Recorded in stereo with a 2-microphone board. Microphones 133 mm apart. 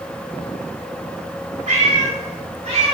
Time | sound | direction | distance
1.7 | a cat meowing | 65° right (ahead or behind) | 1.6 m